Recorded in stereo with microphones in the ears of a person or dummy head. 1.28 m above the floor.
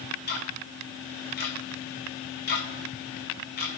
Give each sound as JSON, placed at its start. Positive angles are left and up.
{"t": 0.3, "sound": "ticking", "side_deg": 50, "distance_m": 1.2}